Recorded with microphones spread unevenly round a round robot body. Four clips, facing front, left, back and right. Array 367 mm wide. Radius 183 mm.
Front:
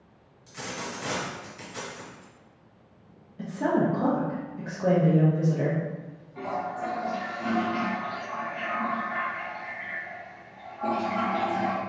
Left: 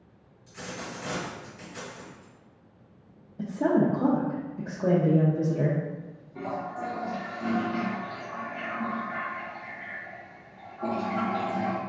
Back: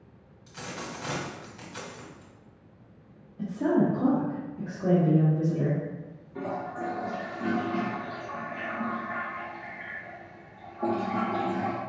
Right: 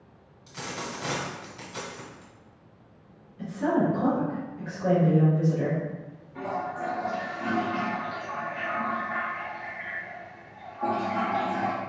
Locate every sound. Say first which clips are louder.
0.5 s a dropped coin: right 2 dB, front 2 dB; 95° right, 1.5 m
3.4 s a woman speaking: left 1 dB, even; 85° left, 0.7 m
6.3 s a toilet flushing: right 2 dB, front 2 dB; 175° right, 0.7 m